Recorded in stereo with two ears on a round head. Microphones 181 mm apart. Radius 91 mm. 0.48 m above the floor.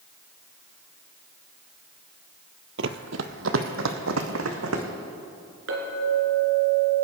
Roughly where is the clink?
Right.